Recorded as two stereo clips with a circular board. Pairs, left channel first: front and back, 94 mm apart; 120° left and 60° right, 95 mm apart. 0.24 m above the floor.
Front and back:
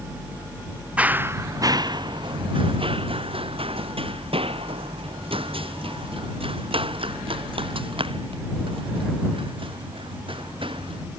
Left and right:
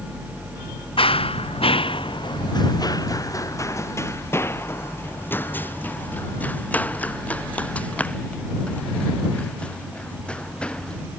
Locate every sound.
1.0 s running footsteps: 105° left; by 11.0 s 160° right